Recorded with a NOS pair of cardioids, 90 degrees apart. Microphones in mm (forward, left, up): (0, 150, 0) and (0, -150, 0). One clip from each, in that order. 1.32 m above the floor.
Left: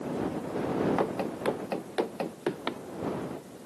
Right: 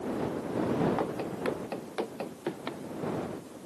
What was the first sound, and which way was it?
Running footsteps, 30° left.